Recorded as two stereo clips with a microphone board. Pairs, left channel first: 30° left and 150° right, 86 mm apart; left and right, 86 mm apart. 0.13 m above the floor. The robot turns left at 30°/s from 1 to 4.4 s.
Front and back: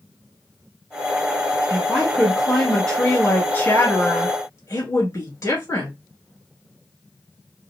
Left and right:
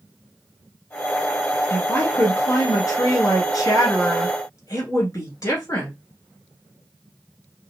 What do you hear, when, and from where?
1.7 s a woman speaking: 145° left, 1.6 m; by 5.9 s 60° left, 1.6 m